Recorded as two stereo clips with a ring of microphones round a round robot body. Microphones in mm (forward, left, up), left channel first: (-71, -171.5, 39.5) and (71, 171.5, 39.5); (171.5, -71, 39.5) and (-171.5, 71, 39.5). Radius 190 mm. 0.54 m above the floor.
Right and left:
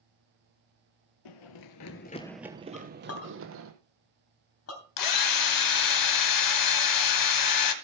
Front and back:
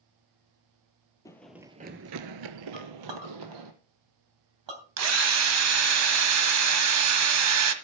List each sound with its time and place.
1.2 s running footsteps: 105° right, 0.9 m; by 3.7 s 120° left, 1.7 m
2.7 s a clink: 165° right, 3 m
5.0 s a drill: 150° right, 1.4 m